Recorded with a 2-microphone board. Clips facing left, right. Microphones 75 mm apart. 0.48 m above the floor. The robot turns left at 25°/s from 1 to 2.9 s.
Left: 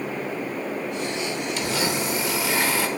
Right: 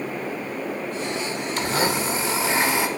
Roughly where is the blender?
Behind right.